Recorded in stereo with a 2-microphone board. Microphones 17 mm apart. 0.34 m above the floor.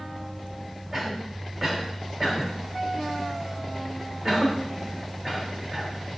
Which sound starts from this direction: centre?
A cough, at 0.9 s.